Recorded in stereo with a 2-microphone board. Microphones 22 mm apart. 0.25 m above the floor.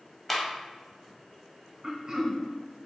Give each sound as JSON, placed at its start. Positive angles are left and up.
{"t": 0.3, "sound": "a clap", "side_deg": 0, "distance_m": 0.9}
{"t": 1.8, "sound": "throat clearing", "side_deg": -35, "distance_m": 0.8}